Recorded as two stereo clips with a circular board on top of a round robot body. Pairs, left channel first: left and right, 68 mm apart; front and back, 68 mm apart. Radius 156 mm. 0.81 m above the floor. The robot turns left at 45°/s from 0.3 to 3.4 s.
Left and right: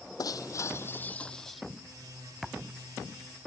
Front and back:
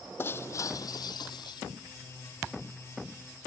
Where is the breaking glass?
60° left; by 1.6 s straight ahead.